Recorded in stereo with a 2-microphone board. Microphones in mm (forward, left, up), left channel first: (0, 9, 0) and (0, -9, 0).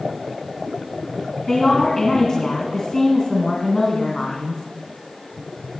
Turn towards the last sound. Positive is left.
turn(degrees=45)  # may be behind; listen again after turning